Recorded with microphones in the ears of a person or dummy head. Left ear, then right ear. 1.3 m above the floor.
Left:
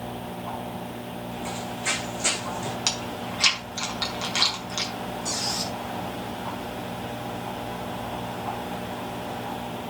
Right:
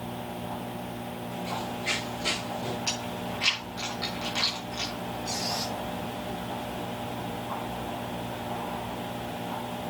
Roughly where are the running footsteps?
Left.